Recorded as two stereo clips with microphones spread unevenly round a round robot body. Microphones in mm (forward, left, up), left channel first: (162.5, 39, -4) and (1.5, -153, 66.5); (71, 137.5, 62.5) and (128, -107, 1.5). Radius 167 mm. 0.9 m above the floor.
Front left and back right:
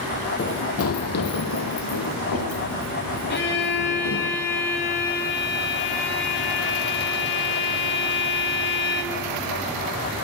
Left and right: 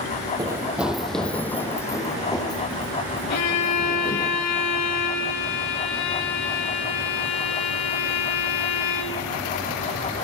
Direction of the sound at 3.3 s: 90° left.